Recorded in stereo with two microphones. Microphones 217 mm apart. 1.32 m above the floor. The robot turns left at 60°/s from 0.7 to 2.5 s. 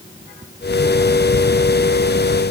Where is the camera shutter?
No camera shutter in this recording.